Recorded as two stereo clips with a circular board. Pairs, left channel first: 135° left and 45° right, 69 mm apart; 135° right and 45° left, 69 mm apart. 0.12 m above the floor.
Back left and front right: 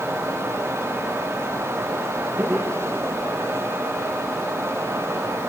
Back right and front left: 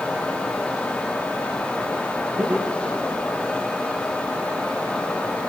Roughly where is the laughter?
Ahead.